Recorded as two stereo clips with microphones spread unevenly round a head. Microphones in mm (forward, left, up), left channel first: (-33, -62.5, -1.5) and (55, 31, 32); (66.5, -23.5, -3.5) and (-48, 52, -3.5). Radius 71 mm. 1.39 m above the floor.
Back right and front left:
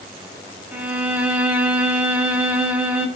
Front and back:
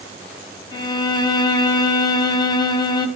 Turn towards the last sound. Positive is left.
turn(degrees=0)